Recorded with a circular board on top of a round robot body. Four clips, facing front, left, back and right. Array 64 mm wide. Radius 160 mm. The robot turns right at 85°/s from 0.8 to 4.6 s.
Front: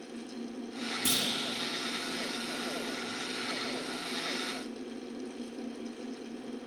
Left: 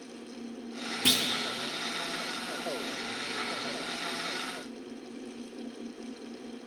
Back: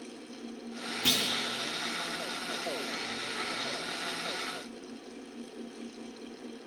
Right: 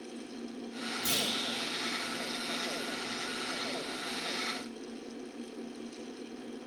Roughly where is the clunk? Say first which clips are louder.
Left 6 dB, back 3 dB; left.